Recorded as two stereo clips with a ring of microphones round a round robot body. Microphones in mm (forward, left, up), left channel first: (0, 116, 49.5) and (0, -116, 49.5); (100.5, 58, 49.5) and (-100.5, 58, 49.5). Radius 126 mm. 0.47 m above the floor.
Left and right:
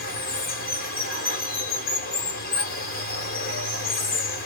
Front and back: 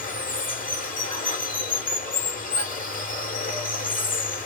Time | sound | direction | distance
0.0 | running water | 45° left | 1.2 m